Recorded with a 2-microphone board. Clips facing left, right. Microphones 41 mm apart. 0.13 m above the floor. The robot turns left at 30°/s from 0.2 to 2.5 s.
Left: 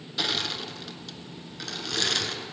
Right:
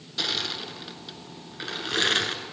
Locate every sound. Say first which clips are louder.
0.2 s crushing: left 1 dB; 5° left (ahead or behind), 0.6 m; by 2.5 s 40° right (ahead or behind), 0.6 m